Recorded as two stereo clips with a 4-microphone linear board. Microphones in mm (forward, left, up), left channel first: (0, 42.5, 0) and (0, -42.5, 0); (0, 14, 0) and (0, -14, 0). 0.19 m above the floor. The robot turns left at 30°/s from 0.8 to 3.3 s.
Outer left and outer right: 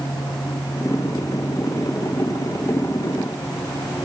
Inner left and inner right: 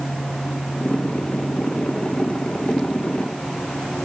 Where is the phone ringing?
I don't hear a phone ringing.